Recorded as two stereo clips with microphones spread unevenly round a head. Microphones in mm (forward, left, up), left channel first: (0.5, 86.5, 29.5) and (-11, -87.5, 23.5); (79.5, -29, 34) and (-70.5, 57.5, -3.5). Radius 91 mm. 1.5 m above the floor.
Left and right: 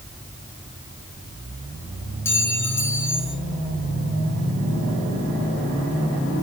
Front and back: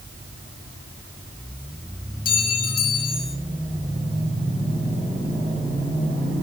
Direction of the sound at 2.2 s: 10° left.